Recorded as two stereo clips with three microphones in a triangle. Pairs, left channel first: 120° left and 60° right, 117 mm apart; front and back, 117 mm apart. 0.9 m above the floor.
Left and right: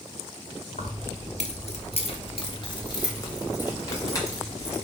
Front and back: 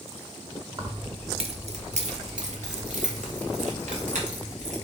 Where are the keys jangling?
125° left, 1.0 m; by 4.8 s 175° right, 2.5 m.